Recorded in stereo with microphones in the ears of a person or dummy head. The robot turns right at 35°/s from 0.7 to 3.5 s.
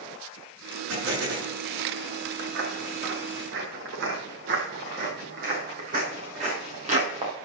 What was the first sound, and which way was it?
An explosion, 75° right (ahead or behind).